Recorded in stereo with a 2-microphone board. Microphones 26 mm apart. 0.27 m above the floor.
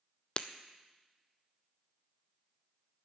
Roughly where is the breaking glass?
Left.